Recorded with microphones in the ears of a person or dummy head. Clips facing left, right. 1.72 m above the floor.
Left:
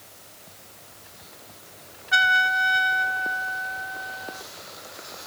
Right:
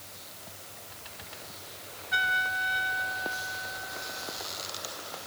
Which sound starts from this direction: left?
A trumpet, at 2.1 s.